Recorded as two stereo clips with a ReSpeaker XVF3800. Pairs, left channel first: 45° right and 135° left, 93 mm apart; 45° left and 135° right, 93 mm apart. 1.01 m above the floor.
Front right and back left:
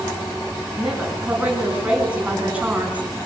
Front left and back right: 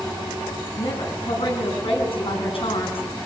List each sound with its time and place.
0.8 s a woman speaking: 60° left, 9 m